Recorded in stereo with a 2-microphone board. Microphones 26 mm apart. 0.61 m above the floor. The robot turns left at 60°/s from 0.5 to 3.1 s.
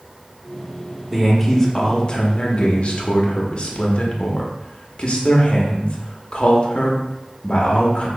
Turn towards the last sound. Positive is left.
turn(degrees=70)